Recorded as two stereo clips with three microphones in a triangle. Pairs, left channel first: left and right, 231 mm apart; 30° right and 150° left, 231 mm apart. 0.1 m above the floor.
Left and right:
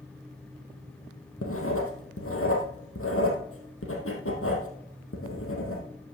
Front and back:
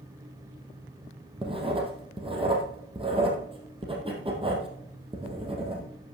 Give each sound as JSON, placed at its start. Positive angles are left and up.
{"t": 1.4, "sound": "writing", "azimuth_deg": 85, "distance_m": 2.5}